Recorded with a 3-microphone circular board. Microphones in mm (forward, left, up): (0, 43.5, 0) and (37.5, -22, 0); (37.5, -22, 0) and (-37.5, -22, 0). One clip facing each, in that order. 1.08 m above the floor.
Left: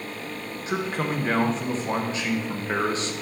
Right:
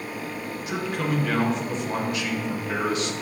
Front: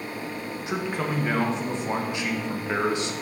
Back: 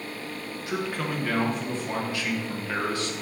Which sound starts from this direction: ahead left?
A man speaking, at 0.7 s.